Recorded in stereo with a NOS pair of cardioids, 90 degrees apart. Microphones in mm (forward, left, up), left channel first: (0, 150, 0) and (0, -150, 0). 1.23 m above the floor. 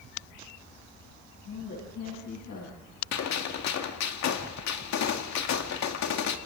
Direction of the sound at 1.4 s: 60° left.